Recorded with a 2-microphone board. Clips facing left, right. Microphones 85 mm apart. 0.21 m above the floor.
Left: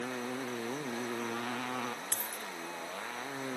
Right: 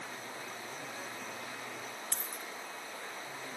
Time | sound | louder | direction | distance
0.0 | a motorcycle | left 7 dB | 85° left | ?
2.1 | a dropped coin | left 2 dB | 60° left (ahead or behind) | ?